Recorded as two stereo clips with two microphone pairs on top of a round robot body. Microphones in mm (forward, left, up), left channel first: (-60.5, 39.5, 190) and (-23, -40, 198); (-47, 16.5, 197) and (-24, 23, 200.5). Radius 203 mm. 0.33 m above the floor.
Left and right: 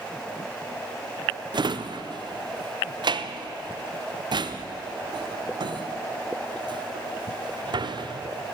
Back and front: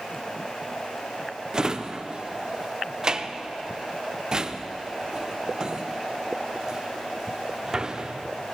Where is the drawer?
50° right, 0.7 m.